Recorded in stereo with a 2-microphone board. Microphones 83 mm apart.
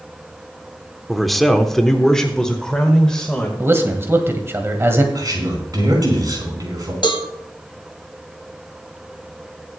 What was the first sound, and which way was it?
A man speaking, centre (ahead or behind).